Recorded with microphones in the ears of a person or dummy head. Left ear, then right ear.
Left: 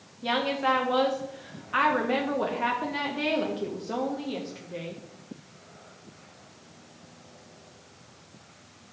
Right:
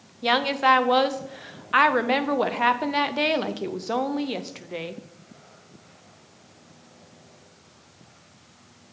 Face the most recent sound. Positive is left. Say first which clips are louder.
# right 6 dB
turn(degrees=-40)  # may be behind; listen again after turning